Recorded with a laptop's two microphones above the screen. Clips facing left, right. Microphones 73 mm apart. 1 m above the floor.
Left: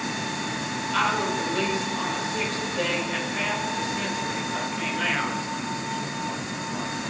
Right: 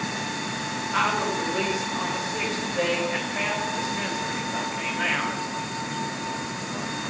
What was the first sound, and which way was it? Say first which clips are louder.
A woman speaking: even; 20° right (ahead or behind).